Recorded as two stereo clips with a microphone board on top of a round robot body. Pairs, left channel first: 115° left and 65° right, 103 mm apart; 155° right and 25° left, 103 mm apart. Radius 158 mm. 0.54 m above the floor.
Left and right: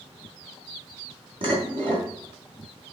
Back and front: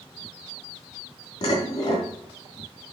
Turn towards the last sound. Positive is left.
turn(degrees=-105)